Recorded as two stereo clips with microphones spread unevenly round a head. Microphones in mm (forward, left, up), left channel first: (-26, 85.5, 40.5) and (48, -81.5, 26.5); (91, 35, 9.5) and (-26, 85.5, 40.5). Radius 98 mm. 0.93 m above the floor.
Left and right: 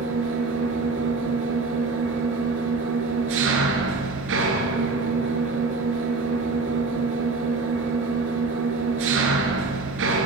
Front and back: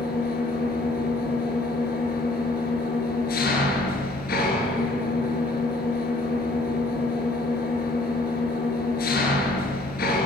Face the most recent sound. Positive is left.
turn(degrees=-45)